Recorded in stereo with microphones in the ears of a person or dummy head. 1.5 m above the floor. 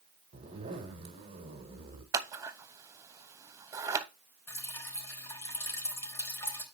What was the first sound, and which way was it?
A zipper, 40° right (ahead or behind).